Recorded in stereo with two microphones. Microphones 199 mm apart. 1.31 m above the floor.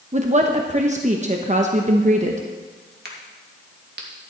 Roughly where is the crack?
Right.